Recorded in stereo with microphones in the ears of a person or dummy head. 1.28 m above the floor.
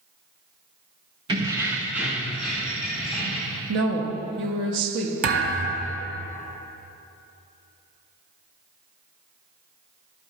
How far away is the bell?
I don't hear a bell.